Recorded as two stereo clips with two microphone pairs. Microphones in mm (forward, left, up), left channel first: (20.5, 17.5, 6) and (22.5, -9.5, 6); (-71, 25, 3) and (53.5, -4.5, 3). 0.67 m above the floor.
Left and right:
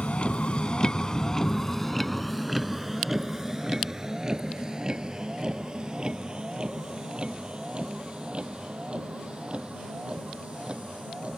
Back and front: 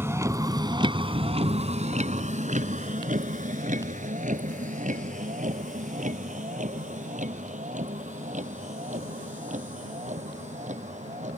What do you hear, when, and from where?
0.0 s a vehicle: 60° left; by 11.4 s 35° right